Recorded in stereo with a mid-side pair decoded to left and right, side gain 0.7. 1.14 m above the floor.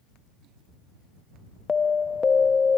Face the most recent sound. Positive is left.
turn(degrees=20)